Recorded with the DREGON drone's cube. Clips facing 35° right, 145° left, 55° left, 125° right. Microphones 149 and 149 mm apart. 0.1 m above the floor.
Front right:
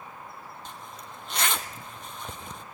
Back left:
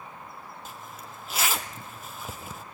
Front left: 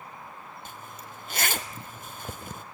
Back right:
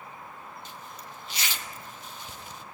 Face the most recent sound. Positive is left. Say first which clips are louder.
# even, even
turn(degrees=60)